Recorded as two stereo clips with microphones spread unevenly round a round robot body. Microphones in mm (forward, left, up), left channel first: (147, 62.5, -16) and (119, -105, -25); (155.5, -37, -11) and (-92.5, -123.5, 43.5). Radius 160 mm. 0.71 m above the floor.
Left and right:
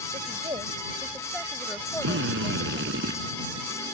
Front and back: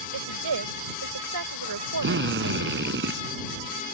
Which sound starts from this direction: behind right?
A drill, at 2.0 s.